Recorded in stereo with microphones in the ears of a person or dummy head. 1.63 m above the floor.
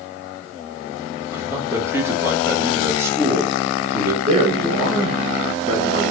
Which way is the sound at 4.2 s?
40° right (ahead or behind).